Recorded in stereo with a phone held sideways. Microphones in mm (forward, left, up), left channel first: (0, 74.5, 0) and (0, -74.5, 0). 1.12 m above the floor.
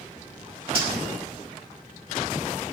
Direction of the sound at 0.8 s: 40° right (ahead or behind).